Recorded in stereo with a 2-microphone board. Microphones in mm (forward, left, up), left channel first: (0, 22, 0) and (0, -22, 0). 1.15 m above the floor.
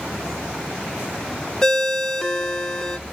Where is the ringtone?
10° left (ahead or behind), 0.6 m.